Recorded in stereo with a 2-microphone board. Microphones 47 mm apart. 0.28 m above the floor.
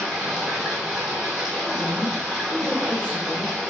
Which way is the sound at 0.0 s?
10° right (ahead or behind).